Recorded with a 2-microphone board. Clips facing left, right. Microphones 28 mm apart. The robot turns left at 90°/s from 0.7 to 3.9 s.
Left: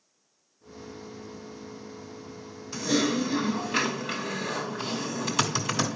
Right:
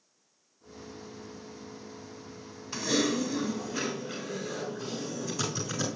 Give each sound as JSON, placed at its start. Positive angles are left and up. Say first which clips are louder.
{"t": 2.7, "sound": "typing on a keyboard", "louder": "left 2 dB", "azimuth_deg": -160, "distance_m": 2.0}